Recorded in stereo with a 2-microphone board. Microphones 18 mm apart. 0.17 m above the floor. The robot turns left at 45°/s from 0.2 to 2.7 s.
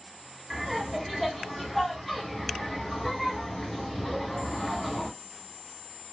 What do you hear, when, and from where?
0.5 s laughter: 5° right (ahead or behind), 1.1 m; by 5.1 s 25° left (ahead or behind), 1.1 m